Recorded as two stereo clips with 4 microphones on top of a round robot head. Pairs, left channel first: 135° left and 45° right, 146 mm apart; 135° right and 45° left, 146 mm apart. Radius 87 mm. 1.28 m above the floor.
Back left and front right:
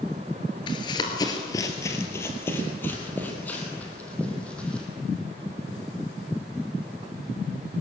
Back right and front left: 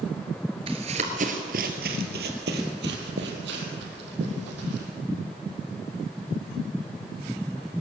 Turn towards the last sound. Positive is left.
turn(degrees=50)